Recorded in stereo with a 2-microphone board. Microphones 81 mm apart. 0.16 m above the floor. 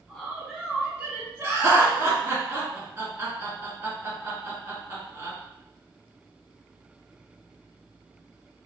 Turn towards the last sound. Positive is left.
turn(degrees=-35)  # may be behind; listen again after turning